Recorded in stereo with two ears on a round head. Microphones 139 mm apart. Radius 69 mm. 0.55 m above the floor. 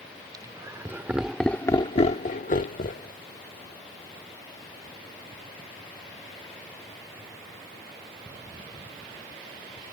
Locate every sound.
0.3 s laughter: 25° right (ahead or behind); by 3.1 s 55° left (ahead or behind)